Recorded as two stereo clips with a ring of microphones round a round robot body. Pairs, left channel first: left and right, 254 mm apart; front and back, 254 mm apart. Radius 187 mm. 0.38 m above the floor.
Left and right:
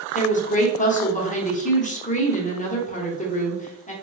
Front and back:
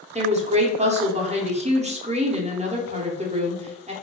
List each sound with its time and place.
0.1 s a woman speaking: 130° left, 1.0 m